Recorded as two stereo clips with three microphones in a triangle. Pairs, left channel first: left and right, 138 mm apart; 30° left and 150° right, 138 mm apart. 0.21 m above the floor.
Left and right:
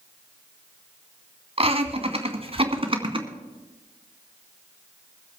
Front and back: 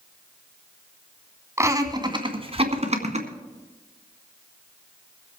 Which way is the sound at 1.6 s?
90° right.